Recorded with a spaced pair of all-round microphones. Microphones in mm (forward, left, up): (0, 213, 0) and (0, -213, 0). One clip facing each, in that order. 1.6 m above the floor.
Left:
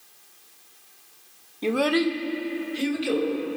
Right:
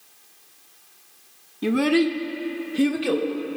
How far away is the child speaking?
About 0.5 m.